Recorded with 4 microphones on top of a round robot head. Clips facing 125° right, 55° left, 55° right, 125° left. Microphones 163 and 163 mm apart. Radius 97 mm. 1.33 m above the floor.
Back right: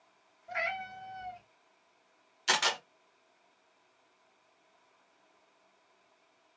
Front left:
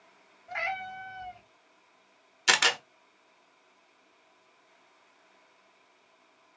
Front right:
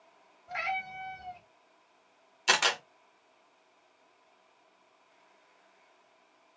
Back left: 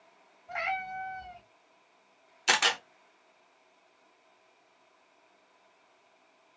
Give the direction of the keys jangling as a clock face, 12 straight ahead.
I don't hear keys jangling.